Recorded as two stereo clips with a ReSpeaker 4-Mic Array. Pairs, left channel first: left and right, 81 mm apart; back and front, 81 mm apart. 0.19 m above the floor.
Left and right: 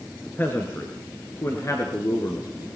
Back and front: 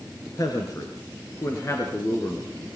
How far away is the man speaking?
About 3 m.